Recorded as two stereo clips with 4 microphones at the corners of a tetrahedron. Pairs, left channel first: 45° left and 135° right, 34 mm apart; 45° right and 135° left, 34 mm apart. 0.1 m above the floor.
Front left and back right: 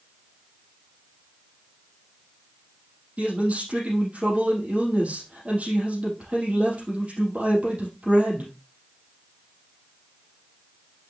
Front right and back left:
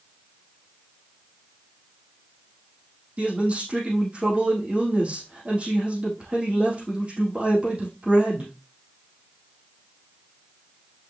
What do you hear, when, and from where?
3.2 s a man speaking: 175° right, 4.5 m